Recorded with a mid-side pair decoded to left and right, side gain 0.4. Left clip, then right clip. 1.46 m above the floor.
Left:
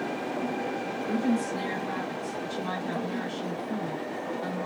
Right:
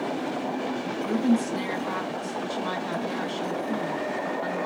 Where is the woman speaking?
55° right, 2.5 m.